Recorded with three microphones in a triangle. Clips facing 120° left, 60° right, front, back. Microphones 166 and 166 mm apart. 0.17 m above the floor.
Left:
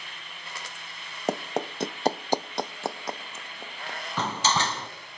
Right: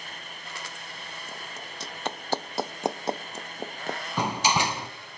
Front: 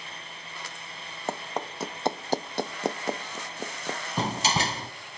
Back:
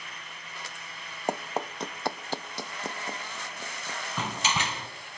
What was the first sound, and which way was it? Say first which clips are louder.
Running footsteps: left 19 dB, back 2 dB; 105° left.